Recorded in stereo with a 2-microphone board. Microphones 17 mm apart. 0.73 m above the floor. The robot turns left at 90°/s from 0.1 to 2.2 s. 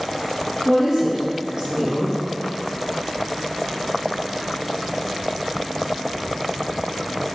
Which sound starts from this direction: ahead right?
A woman speaking, at 0.7 s.